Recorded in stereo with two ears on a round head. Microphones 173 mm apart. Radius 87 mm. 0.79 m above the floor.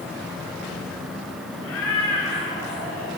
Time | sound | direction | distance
1.6 | a cat meowing | 80° left | 4 m